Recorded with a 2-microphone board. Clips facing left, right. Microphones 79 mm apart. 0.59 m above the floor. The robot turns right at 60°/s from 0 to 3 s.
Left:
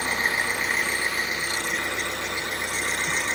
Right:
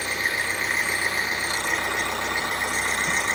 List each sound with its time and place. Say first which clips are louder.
0.0 s an engine running: left 1 dB; 135° left, 3.5 m; by 3.4 s 45° right, 3.5 m